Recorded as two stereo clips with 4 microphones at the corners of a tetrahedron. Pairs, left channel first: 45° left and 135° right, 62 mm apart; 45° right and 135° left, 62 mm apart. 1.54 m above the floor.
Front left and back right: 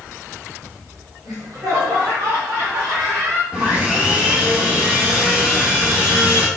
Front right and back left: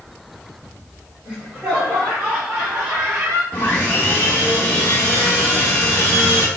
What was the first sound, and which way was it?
Laughter, 155° right.